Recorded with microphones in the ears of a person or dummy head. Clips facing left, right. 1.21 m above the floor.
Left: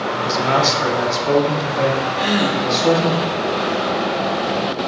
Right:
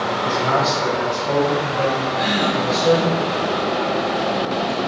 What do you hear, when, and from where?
0.2 s a man speaking: 20° left (ahead or behind), 0.5 m; by 3.2 s 60° left (ahead or behind), 2 m
2.2 s a gasp: 10° left (ahead or behind), 1.0 m